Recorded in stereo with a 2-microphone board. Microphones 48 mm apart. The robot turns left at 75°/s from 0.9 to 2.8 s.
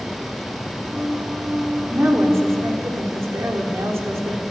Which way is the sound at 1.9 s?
40° right.